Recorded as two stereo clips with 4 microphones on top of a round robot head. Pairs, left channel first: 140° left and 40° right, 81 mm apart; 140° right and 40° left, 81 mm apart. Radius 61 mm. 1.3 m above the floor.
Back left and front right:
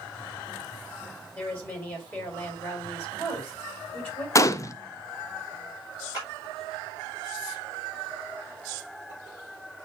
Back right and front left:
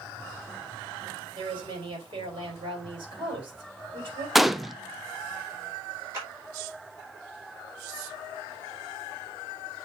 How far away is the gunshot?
About 0.5 m.